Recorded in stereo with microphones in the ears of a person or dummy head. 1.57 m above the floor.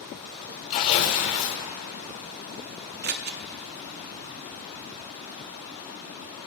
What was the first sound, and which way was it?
Tearing paper, 55° left (ahead or behind).